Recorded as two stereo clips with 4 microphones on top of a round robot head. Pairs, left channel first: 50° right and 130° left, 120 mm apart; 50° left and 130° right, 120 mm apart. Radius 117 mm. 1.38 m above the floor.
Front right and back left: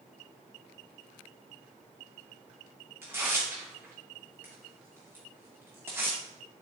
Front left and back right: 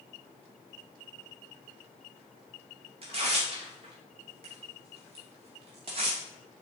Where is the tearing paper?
160° right, 0.5 m.